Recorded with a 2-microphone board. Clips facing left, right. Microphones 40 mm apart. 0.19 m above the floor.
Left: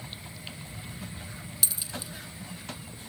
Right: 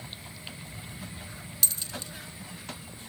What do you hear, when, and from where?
1.6 s a dropped coin: 5° left (ahead or behind), 0.5 m